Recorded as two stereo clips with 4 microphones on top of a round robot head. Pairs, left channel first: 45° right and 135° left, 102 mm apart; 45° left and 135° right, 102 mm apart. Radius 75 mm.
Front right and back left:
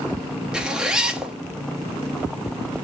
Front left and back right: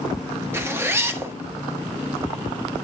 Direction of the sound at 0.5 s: 150° right.